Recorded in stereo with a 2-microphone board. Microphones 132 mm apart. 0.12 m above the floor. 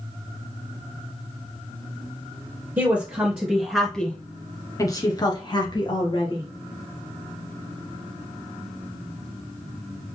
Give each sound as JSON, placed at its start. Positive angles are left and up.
{"t": 2.8, "sound": "a woman speaking", "side_deg": -15, "distance_m": 1.8}